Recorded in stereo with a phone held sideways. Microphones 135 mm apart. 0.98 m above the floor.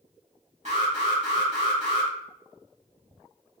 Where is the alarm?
55° right (ahead or behind), 1.6 m.